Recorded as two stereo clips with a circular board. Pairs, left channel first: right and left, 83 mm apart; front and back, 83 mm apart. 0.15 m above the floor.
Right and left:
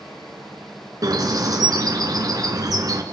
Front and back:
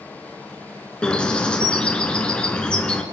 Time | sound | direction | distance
1.0 | a bird | 75° left | 2.5 m